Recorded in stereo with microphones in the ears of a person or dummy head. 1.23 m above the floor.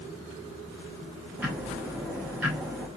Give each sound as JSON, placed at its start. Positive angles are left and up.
{"t": 1.4, "sound": "ticking", "side_deg": -10, "distance_m": 0.7}